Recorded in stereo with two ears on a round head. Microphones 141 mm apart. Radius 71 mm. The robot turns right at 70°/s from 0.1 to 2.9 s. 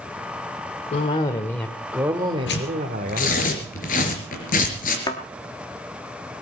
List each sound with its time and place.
0.9 s a cough: 120° left, 1.4 m; by 3.5 s 100° right, 1.4 m
2.5 s tearing paper: 90° left, 3.5 m; by 5.0 s 60° left (ahead or behind), 3.5 m
5.1 s a thud: 25° left (ahead or behind), 1.5 m